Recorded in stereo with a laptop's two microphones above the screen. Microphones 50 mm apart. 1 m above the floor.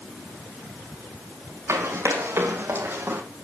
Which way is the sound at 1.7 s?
60° right (ahead or behind).